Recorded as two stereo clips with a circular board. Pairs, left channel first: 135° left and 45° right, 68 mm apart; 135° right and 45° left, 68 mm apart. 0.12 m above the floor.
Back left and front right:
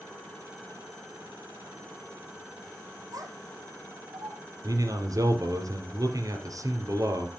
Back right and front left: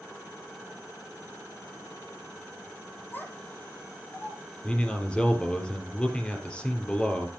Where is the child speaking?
70° right, 3 m.